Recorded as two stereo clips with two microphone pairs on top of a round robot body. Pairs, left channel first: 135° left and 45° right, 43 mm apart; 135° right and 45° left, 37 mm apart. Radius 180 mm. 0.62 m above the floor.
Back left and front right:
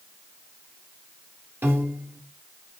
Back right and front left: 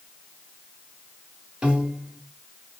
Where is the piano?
20° right, 2.5 m.